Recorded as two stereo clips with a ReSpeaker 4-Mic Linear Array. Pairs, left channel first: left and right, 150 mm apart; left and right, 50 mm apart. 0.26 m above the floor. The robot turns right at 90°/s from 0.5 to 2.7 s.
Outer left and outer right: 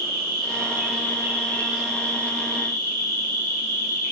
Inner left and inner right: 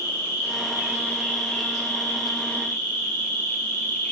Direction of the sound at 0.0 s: 80° right.